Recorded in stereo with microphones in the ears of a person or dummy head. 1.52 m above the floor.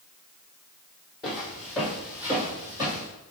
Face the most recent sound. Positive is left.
turn(degrees=-25)  # may be behind; listen again after turning